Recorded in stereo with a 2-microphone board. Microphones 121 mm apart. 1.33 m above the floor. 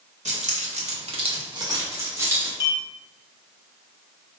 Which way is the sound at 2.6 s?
30° left (ahead or behind).